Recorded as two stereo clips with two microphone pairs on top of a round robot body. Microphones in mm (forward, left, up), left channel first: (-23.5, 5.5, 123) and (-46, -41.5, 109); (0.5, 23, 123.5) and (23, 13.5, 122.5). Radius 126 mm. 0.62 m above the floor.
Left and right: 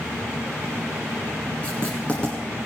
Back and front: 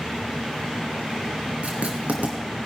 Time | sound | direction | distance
1.6 | writing | straight ahead | 1.3 m